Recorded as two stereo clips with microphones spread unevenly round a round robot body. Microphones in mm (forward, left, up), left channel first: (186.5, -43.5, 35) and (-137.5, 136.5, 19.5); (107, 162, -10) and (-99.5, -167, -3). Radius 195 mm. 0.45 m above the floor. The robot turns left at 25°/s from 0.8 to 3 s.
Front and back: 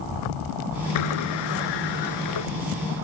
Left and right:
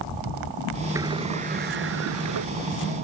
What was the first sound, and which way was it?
A sliding door, 40° right.